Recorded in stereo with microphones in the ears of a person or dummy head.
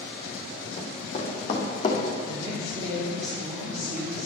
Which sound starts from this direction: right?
A woman speaking, at 2.2 s.